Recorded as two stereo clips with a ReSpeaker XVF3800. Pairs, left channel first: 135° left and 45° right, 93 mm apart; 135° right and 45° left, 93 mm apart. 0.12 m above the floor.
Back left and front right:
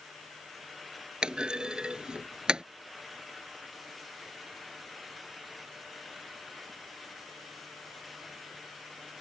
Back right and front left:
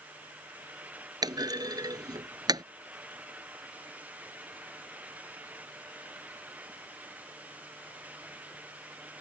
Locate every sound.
1.2 s a clunk: 30° left